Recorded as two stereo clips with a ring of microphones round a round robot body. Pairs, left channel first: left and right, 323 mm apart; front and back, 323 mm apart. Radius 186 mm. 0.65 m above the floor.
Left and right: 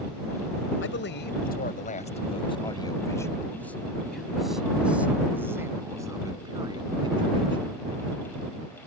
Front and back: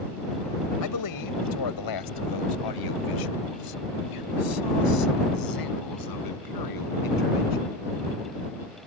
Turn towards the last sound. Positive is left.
turn(degrees=-15)